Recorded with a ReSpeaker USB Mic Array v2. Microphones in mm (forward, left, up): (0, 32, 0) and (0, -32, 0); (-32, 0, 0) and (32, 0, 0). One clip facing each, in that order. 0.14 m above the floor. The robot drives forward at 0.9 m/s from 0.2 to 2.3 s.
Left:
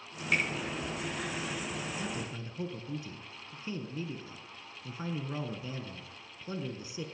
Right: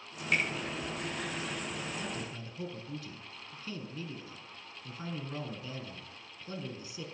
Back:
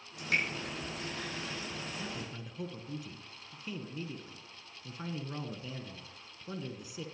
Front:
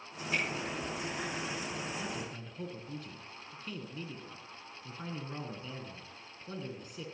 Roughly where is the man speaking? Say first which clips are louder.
Left 2 dB, front 2 dB; left.